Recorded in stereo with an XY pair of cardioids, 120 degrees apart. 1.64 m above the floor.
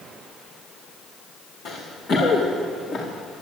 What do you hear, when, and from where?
1.6 s running footsteps: 65° left, 6 m; by 3.1 s 45° left, 5.5 m